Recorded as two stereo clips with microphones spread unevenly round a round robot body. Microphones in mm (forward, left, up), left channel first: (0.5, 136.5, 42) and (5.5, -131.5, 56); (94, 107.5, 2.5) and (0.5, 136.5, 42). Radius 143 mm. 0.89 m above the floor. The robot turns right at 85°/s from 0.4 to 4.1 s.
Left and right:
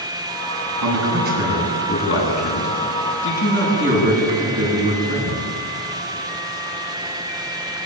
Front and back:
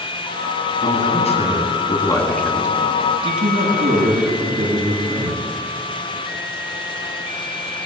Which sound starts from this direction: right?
A man speaking, at 0.8 s.